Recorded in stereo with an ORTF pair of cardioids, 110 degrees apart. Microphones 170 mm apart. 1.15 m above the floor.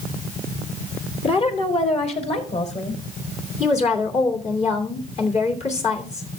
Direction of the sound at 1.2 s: 35° left.